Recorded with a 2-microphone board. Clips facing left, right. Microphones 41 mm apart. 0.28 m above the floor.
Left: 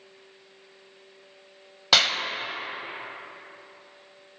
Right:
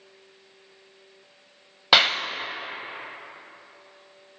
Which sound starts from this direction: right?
A clap, at 1.9 s.